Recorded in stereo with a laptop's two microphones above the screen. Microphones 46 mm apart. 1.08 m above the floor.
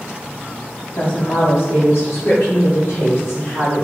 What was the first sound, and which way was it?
A woman speaking, 55° left (ahead or behind).